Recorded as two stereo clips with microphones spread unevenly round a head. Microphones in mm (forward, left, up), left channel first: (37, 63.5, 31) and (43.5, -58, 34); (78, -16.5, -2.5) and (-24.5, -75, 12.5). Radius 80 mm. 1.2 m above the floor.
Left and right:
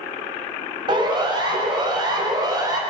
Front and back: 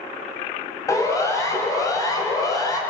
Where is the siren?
35° right, 6.5 m; by 2.8 s 30° right, 4.5 m.